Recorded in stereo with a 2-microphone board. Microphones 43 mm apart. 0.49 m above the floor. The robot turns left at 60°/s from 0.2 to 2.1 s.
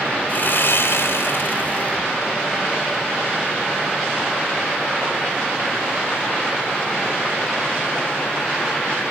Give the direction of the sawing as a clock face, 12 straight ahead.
8 o'clock.